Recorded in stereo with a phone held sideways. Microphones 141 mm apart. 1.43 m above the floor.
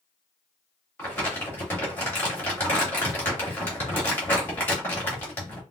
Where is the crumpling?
15° left (ahead or behind), 2 m.